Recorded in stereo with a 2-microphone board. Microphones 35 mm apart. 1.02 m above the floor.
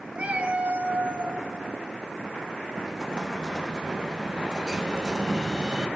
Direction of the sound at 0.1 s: 35° right (ahead or behind).